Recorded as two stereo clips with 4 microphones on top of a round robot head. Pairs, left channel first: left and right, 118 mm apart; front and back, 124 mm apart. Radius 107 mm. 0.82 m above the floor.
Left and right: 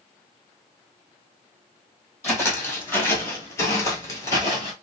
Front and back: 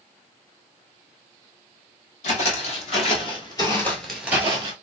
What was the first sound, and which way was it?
Footsteps, 20° left.